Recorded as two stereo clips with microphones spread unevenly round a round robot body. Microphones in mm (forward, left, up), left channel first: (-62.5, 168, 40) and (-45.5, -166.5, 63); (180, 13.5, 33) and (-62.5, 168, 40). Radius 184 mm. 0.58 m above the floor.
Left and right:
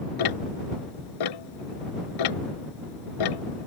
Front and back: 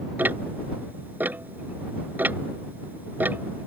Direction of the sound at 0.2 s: 65° left.